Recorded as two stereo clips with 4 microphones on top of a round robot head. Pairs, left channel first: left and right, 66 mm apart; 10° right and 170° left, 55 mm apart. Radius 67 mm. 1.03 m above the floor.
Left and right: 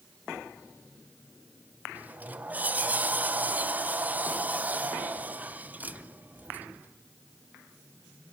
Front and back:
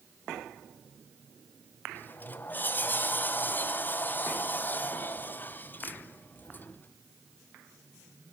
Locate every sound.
1.9 s a sliding door: 40° right, 0.7 m